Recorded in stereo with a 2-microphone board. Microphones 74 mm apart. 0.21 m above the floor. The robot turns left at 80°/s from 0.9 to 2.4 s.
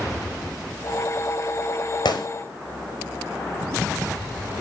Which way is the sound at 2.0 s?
80° left.